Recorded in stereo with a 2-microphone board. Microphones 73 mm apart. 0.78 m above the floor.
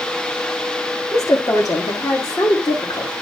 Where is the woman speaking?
45° left (ahead or behind), 1.8 m; by 3.1 s 60° left (ahead or behind), 2.5 m.